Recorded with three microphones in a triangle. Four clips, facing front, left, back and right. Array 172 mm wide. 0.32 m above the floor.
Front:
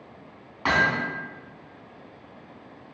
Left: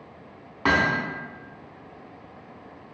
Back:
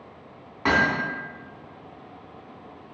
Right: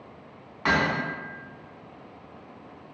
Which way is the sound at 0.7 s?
110° left.